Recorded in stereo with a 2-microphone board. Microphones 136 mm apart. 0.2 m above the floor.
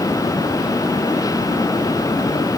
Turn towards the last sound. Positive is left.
No sound to turn to.